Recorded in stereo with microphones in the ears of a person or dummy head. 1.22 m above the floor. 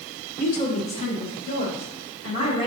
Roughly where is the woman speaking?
Left.